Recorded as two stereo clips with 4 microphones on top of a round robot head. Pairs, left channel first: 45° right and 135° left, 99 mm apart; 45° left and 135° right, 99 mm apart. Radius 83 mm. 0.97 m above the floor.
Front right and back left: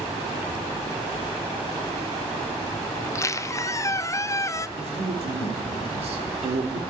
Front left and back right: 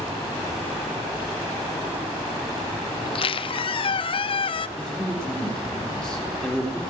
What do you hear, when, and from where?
3.0 s a squeak: 15° left, 0.6 m
4.8 s a man speaking: 125° left, 3.5 m